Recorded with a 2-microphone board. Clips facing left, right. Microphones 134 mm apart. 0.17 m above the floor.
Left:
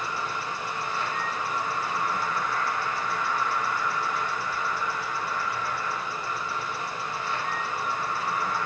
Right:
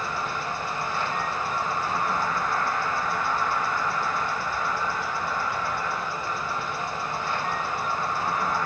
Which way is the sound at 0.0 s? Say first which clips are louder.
Right 2 dB; 60° right (ahead or behind).